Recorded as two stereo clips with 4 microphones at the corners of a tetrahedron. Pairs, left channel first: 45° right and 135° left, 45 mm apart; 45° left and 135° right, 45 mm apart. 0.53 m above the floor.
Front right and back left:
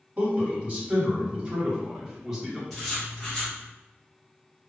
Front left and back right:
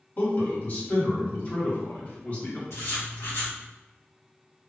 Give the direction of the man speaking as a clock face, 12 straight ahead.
9 o'clock.